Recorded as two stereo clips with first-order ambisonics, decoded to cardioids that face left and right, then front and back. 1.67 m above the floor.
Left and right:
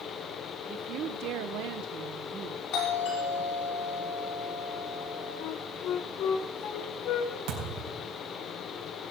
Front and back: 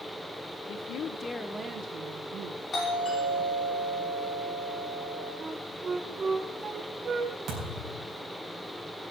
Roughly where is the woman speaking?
Ahead right.